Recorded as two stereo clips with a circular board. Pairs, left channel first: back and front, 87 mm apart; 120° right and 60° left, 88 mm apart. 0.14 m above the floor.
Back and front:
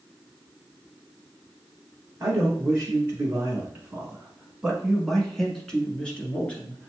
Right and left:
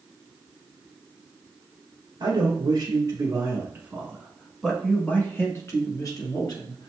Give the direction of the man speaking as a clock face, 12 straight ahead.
10 o'clock.